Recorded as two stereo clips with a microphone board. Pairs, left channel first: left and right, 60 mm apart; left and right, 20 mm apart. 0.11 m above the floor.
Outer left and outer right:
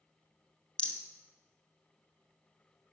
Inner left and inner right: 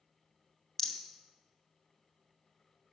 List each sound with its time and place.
0.8 s a rattle: 20° left (ahead or behind), 0.6 m